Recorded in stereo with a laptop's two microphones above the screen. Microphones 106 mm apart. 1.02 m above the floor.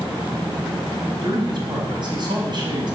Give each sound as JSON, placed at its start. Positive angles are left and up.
{"t": 1.2, "sound": "a man speaking", "side_deg": -45, "distance_m": 6.0}